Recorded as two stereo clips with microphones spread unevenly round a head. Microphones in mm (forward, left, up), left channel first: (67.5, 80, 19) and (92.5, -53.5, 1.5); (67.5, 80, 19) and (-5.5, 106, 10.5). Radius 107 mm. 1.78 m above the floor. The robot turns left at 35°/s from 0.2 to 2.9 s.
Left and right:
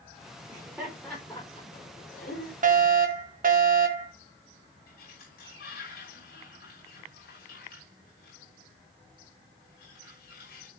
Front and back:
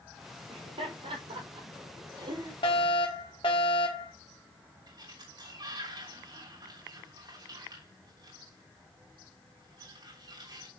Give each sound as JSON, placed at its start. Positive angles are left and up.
{"t": 0.5, "sound": "laughter", "azimuth_deg": -150, "distance_m": 5.0}
{"t": 2.6, "sound": "a fire alarm", "azimuth_deg": -60, "distance_m": 1.8}
{"t": 4.9, "sound": "a sliding door", "azimuth_deg": 135, "distance_m": 5.5}